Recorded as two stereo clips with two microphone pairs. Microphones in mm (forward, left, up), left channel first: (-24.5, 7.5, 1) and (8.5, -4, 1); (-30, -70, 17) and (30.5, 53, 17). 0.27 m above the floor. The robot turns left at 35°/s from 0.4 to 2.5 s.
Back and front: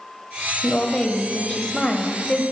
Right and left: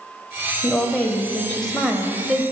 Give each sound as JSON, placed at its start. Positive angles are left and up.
{"t": 0.6, "sound": "a woman speaking", "azimuth_deg": -155, "distance_m": 0.9}